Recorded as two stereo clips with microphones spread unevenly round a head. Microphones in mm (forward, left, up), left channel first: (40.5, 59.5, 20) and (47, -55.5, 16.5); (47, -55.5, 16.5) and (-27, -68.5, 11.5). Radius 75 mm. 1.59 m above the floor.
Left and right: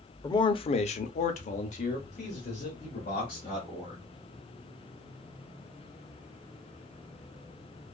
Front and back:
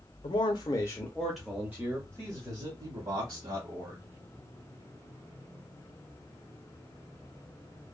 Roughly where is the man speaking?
Ahead left.